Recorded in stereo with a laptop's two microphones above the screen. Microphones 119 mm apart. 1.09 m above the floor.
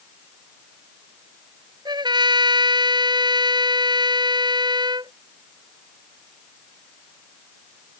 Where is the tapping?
No tapping in this recording.